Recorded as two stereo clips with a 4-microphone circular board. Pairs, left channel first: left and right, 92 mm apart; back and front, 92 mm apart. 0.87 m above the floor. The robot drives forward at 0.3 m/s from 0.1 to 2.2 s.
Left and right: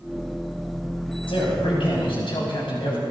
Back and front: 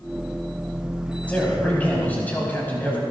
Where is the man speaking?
105° left, 6 m; by 3.0 s 110° left, 6 m.